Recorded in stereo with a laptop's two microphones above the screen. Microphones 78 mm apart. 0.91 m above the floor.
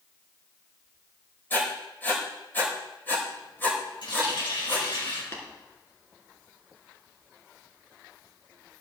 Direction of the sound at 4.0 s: 80° left.